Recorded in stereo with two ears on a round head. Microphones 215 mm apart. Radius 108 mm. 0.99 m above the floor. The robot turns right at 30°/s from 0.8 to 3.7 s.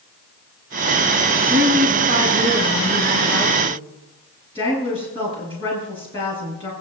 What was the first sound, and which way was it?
A woman speaking, 45° right.